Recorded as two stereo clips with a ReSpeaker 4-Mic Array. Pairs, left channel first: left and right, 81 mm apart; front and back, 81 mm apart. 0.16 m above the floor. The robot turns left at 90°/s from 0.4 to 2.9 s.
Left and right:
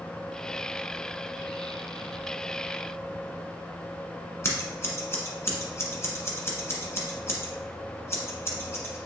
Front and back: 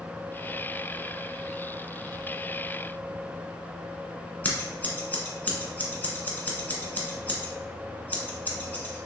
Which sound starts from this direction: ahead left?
Scissors, at 4.4 s.